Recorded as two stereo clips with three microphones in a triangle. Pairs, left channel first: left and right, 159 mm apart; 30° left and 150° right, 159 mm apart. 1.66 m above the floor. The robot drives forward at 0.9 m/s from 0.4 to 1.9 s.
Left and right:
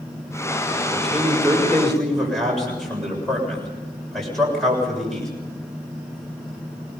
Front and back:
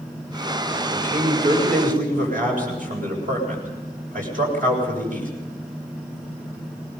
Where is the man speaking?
Straight behind, 6.5 m.